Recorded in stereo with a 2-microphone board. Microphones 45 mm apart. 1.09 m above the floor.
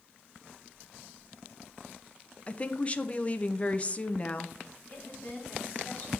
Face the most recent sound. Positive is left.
turn(degrees=35)  # may be behind; listen again after turning